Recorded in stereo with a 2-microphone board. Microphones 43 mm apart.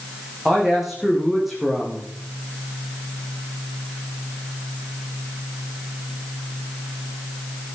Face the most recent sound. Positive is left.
turn(degrees=-5)  # may be behind; listen again after turning